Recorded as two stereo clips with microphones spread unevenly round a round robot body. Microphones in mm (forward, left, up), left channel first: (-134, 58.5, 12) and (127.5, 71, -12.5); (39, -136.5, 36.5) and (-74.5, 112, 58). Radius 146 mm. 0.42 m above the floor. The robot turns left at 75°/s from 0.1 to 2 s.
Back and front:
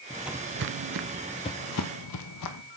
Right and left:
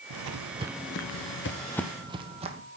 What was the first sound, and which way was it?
Footsteps, 110° left.